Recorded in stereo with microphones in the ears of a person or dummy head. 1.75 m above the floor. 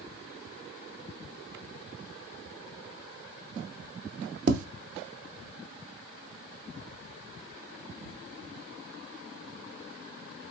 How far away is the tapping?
About 0.6 m.